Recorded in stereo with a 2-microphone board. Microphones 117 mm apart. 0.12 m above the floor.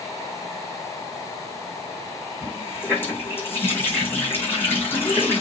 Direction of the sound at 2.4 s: 15° left (ahead or behind).